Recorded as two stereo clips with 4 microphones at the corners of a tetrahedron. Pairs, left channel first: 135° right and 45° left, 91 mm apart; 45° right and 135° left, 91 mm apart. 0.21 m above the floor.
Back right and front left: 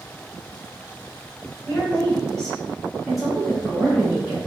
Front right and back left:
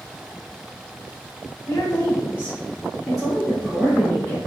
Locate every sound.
1.7 s a woman speaking: 70° right, 1.4 m; by 4.4 s 105° left, 1.3 m